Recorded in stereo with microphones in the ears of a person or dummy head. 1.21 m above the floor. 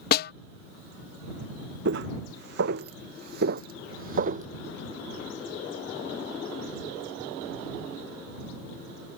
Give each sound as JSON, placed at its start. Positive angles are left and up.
{"t": 0.1, "sound": "a snare drum", "side_deg": 60}
{"t": 1.9, "sound": "footsteps", "side_deg": -65}